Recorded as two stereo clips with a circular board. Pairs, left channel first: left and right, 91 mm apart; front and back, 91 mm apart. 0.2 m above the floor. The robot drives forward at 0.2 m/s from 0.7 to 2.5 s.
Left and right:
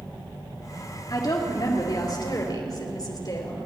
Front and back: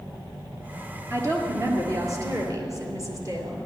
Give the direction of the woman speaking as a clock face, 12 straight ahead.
8 o'clock.